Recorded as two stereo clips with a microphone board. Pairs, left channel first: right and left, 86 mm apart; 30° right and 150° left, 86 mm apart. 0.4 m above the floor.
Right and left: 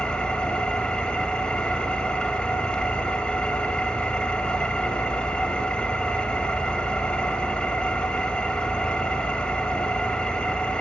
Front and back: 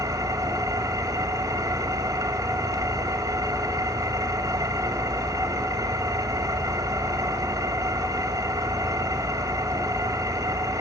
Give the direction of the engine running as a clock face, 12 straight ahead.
6 o'clock.